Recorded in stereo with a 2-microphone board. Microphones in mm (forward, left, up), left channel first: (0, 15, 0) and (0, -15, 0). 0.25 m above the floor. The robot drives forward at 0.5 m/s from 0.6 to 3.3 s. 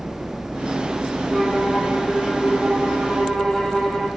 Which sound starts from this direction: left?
A violin, at 1.3 s.